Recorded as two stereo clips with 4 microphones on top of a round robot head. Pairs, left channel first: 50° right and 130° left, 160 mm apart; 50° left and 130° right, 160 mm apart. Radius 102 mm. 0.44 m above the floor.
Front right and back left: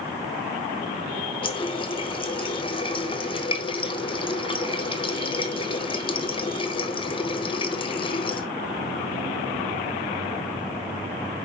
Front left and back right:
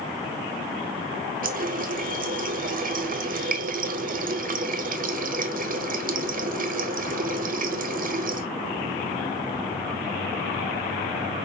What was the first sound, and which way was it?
A running tap, 105° right.